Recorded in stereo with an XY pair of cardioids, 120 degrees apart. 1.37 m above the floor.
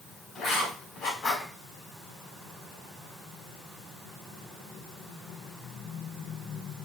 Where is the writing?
55° left, 4 m.